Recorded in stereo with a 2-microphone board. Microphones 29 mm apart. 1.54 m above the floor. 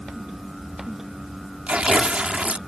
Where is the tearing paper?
45° right (ahead or behind).